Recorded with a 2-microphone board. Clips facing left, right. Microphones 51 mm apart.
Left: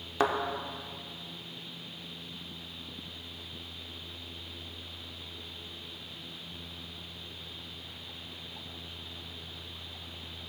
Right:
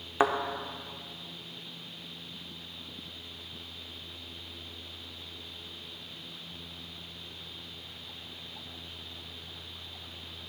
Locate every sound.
0.2 s a thud: 20° right (ahead or behind), 0.7 m